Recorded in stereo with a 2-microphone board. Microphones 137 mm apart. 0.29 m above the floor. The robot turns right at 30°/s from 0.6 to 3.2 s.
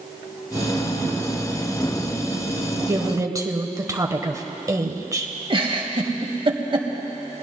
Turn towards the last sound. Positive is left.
turn(degrees=-40)  # may be behind; listen again after turning